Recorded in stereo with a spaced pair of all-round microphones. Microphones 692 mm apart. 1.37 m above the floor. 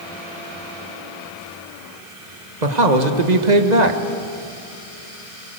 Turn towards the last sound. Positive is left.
turn(degrees=-80)